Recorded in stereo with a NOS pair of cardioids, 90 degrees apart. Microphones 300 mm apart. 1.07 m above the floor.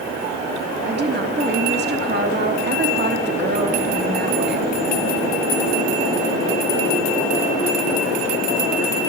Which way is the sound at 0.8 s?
35° right.